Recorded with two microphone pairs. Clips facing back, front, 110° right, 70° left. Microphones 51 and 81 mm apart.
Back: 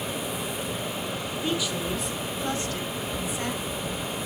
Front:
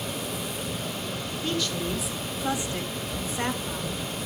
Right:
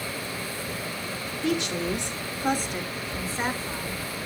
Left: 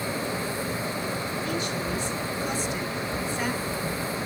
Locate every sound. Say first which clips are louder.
1.4 s a woman speaking: even, right 8 dB; 105° right, 2.5 m; by 4.2 s 45° right, 3.5 m